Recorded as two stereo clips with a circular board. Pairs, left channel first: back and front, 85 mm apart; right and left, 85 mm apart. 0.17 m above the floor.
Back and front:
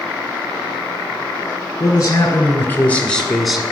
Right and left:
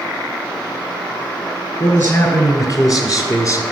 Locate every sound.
1.8 s a man speaking: 135° right, 3.5 m; by 3.6 s 80° right, 1.9 m